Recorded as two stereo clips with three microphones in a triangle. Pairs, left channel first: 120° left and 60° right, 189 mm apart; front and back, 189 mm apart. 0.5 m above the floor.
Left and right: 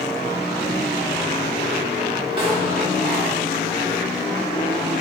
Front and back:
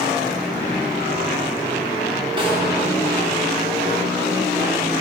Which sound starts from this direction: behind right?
A snare drum, at 2.4 s.